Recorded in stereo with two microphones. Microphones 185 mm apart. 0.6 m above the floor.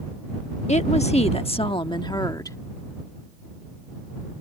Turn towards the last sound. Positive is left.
turn(degrees=15)  # may be behind; listen again after turning